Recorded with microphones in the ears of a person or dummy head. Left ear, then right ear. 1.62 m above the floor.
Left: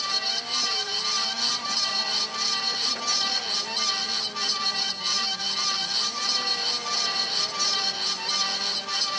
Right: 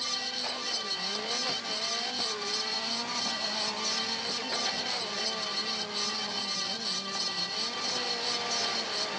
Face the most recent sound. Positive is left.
No sound to turn to.